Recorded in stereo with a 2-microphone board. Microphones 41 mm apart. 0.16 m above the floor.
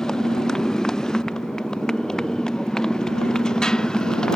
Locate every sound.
0.0 s a motorcycle: 15° left (ahead or behind); by 4.4 s 20° left (ahead or behind)